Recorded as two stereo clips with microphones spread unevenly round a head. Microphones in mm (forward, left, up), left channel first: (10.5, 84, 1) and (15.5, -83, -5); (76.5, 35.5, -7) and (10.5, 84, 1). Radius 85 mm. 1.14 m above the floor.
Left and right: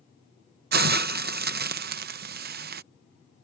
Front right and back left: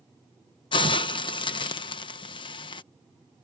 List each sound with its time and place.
0.7 s a hiss: 65° right